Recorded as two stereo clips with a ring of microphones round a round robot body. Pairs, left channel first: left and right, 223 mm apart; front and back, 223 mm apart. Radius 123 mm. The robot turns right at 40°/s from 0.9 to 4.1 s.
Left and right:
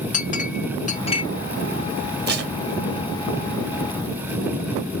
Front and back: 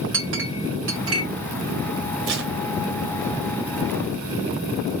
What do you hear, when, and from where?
0.1 s a clink: 145° left, 1.6 m; by 1.2 s 160° left, 1.6 m
2.3 s tape being pulled: 135° right, 1.9 m; by 2.5 s 125° right, 1.9 m